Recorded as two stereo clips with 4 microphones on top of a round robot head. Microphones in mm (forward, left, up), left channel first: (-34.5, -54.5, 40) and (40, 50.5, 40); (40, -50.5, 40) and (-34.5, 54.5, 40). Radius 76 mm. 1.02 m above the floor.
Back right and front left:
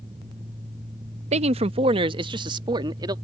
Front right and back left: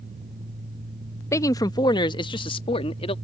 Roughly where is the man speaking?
Ahead.